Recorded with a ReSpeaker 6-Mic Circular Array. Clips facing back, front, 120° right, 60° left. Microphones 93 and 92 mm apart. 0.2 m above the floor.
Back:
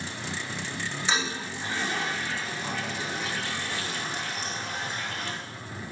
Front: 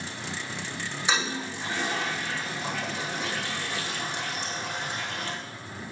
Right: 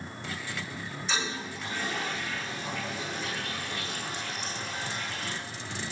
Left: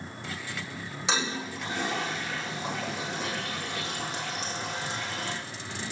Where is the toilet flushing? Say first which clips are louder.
Front 2 dB, left 3 dB; 75° left, 7 m.